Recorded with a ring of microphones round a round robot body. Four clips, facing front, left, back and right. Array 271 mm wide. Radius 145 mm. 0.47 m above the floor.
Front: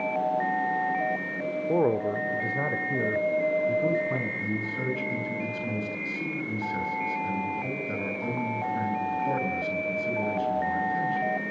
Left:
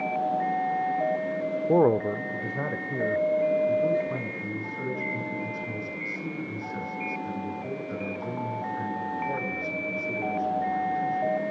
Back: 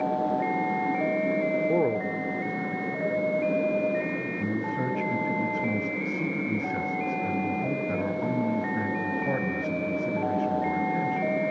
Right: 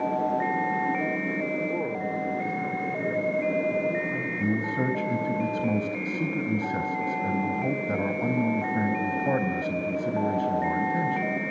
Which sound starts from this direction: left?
A man speaking, at 1.7 s.